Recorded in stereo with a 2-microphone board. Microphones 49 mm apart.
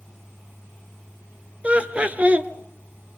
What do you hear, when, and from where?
1.6 s laughter: 30° right (ahead or behind), 1.5 m